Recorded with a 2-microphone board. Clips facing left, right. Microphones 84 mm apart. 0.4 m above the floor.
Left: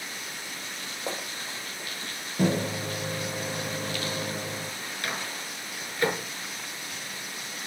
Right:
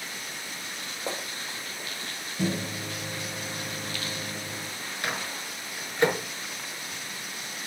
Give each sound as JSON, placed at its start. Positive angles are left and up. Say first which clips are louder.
{"t": 2.4, "sound": "a microwave", "louder": "left 4 dB", "side_deg": 50, "distance_m": 0.8}
{"t": 5.0, "sound": "a microwave", "louder": "right 2 dB", "side_deg": -25, "distance_m": 5.5}